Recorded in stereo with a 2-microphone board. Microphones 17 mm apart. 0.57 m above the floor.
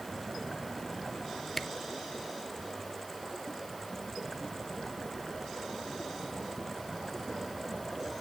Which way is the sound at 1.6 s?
25° left (ahead or behind).